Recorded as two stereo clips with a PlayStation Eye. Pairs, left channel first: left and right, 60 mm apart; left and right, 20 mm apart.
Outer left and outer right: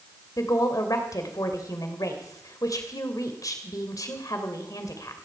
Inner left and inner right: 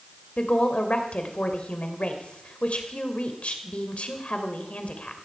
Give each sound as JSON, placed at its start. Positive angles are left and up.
{"t": 0.4, "sound": "a woman speaking", "side_deg": 75, "distance_m": 2.5}